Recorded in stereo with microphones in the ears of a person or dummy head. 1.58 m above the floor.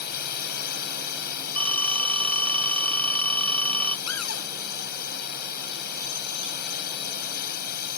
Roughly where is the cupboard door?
Left.